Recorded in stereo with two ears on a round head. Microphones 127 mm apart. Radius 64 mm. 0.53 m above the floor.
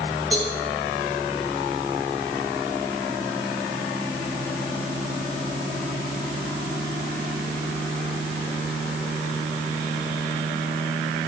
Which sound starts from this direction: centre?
A cowbell, at 0.3 s.